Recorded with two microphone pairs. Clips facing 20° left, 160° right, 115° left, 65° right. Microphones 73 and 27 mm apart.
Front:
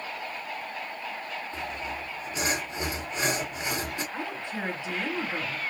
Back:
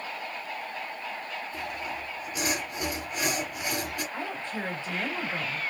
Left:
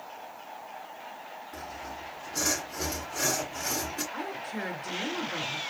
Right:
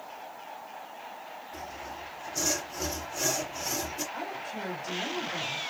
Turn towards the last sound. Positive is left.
turn(degrees=90)